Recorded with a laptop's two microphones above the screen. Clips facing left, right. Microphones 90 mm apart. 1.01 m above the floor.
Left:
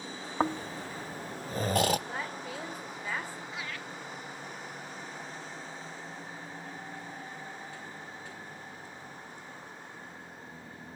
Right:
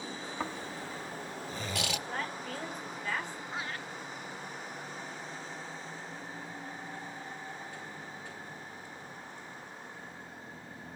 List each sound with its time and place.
0.4 s snoring: 40° left (ahead or behind), 0.5 m
2.1 s a woman speaking: 10° left (ahead or behind), 3 m
3.5 s laughter: 35° right (ahead or behind), 0.6 m